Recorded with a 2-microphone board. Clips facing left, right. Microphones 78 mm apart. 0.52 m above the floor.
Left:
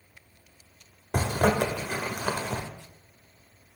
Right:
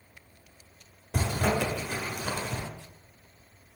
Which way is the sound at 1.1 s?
55° left (ahead or behind).